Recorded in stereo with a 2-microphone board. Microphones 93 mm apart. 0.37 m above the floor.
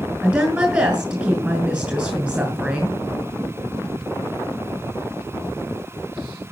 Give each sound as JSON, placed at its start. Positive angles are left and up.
{"t": 0.2, "sound": "a woman speaking", "side_deg": -20, "distance_m": 2.5}